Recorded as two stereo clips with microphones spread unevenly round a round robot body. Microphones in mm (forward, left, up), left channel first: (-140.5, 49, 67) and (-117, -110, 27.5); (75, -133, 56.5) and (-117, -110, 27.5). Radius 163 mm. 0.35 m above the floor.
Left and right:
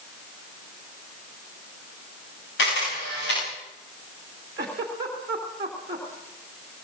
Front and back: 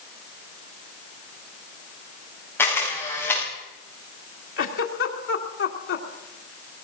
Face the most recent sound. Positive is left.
turn(degrees=-10)